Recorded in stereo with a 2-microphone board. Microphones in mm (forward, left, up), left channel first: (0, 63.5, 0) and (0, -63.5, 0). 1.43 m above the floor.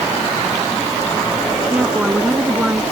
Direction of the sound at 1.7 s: 10° right (ahead or behind).